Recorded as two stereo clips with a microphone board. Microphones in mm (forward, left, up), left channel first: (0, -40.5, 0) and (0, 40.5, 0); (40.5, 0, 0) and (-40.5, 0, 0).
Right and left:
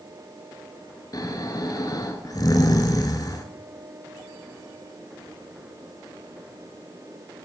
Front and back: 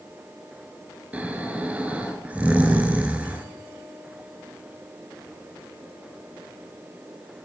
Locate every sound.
1.1 s snoring: 110° right, 1.0 m